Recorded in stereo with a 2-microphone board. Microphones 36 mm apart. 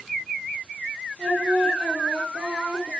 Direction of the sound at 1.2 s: 30° right (ahead or behind).